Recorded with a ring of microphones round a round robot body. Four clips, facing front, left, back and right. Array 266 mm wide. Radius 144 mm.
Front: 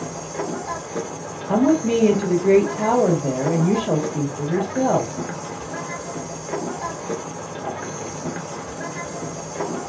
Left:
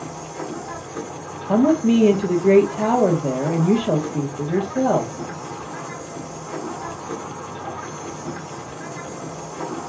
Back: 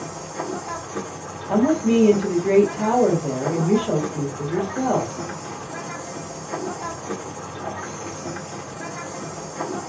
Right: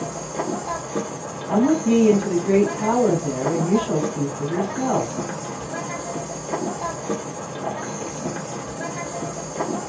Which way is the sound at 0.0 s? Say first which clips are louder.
Right 4 dB, front 2 dB; 60° right.